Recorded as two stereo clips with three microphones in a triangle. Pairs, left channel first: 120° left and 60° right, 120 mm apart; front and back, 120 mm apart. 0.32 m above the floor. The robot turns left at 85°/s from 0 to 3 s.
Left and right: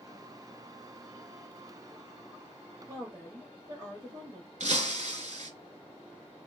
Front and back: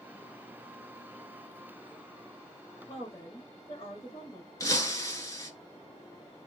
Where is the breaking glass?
60° right, 0.8 m.